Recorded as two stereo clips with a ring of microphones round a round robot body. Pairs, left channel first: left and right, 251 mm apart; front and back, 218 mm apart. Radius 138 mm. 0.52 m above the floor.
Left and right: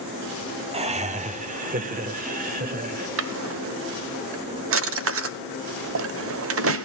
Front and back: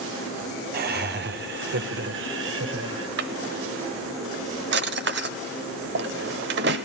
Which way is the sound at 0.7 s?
150° right.